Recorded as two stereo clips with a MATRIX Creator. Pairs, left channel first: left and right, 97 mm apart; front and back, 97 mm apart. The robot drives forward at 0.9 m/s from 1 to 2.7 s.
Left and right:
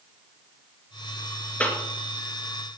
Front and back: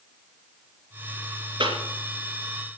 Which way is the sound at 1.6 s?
160° left.